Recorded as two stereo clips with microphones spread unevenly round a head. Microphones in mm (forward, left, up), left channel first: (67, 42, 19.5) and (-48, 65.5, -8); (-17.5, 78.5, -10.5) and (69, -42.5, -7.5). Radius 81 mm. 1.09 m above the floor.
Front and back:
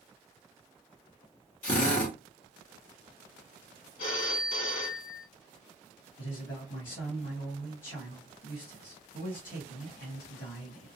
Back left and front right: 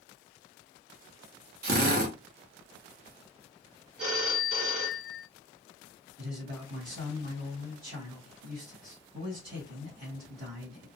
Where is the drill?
35° right, 1.0 m.